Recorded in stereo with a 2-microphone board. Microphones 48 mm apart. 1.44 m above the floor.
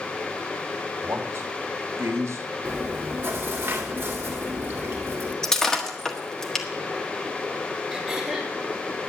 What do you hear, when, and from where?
1.0 s a man speaking: 75° right (ahead or behind), 2 m; by 2.5 s 80° right, 1.5 m
2.6 s chewing: 55° right (ahead or behind), 2 m
5.4 s breaking glass: 10° left (ahead or behind), 1.5 m
7.9 s throat clearing: centre (ahead or behind), 4.5 m